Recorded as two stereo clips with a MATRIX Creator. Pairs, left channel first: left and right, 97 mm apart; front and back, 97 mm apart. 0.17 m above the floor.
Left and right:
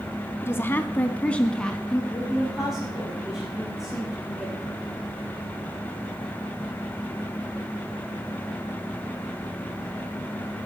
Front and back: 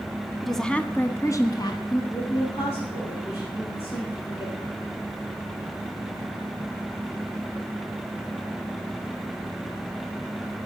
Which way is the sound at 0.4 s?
90° left.